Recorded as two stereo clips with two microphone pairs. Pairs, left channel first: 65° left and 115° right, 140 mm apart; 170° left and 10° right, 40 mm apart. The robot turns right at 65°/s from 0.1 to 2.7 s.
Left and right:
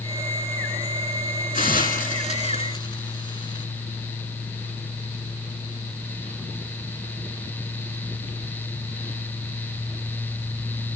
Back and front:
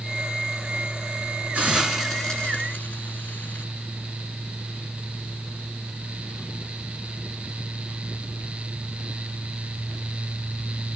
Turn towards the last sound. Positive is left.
turn(degrees=120)